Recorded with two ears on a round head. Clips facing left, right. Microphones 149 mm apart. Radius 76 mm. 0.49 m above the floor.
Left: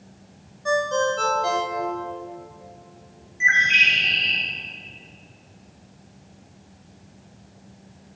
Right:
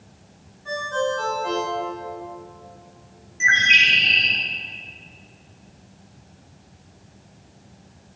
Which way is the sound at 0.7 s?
80° left.